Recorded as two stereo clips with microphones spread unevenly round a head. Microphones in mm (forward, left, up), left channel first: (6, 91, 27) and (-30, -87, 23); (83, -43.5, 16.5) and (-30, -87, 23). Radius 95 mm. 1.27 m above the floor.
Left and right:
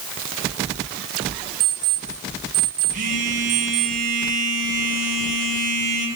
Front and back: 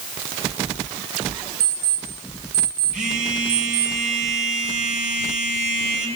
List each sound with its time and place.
1.6 s an alarm clock: 165° right, 4.5 m
2.9 s a phone buzzing: 145° right, 5.5 m